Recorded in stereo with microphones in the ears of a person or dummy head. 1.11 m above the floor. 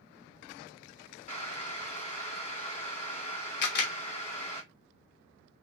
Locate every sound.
1.3 s boiling: 25° left (ahead or behind), 1.5 m
3.6 s a camera shutter: 65° left (ahead or behind), 0.9 m